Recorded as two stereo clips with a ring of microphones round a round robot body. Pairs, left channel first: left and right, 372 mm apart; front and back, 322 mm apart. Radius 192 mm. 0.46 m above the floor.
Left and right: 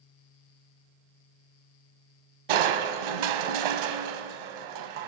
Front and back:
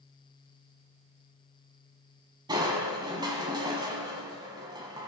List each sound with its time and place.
2.5 s crushing: 100° right, 1.1 m